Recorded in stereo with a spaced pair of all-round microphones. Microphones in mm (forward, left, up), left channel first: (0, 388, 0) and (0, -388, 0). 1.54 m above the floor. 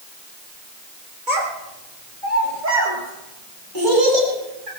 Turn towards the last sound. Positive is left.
turn(degrees=-85)